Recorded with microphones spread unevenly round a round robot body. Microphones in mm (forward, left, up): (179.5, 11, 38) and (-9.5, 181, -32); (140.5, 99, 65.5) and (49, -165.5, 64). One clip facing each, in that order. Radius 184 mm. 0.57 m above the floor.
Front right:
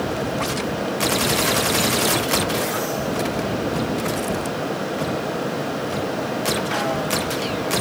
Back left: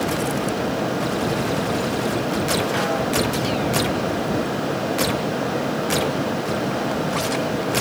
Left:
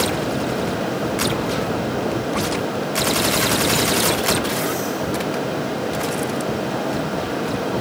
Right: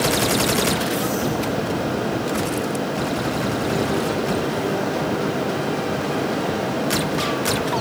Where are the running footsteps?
No running footsteps in this recording.